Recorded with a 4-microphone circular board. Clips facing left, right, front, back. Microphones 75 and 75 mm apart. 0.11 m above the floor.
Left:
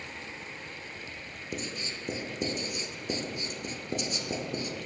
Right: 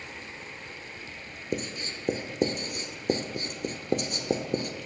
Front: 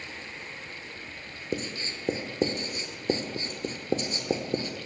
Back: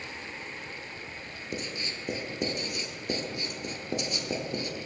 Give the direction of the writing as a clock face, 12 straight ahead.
2 o'clock.